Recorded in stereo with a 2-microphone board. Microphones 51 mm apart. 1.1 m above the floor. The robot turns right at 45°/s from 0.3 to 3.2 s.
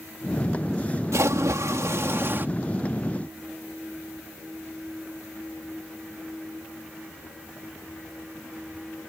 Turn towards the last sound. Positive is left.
turn(degrees=-10)